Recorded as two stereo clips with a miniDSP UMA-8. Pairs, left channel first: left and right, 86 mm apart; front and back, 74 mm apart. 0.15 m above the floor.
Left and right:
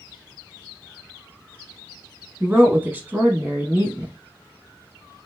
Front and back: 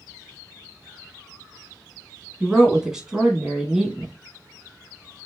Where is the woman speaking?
110° right, 1.0 m.